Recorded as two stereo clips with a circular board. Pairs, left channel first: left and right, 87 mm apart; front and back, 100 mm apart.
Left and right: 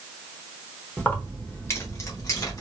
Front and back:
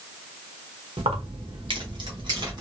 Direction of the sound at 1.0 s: 165° left.